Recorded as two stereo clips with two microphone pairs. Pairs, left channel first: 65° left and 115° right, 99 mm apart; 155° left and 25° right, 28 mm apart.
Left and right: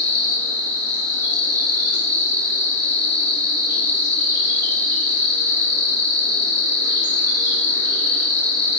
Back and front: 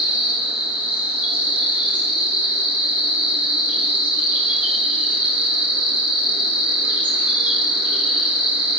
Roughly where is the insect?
Ahead right.